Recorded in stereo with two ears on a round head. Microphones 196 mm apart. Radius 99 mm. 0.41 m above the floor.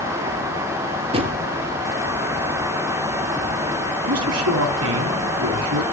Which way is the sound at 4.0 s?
75° right (ahead or behind).